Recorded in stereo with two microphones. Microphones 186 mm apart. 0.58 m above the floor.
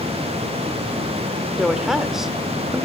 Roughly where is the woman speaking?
Centre.